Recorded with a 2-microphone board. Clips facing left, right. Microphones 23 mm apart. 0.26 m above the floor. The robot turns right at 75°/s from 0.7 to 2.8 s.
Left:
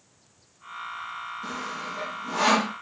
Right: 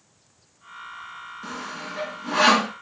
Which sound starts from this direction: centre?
Sawing, at 1.4 s.